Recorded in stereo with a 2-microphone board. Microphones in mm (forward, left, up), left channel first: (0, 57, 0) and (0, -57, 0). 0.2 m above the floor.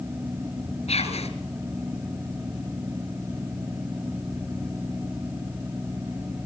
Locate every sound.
0.9 s whispering: 70° left (ahead or behind), 4.5 m